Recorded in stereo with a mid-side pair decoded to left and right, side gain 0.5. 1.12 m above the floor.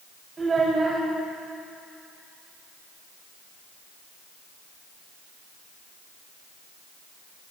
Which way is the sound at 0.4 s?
30° right.